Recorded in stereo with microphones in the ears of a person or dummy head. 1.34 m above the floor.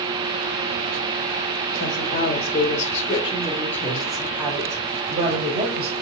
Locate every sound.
1.8 s a woman speaking: 65° left (ahead or behind), 1.2 m; by 5.9 s 35° right (ahead or behind), 1.7 m